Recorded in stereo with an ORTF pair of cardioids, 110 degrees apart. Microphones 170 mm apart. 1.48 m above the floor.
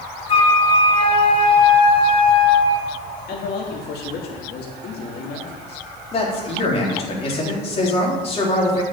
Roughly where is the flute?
Ahead left.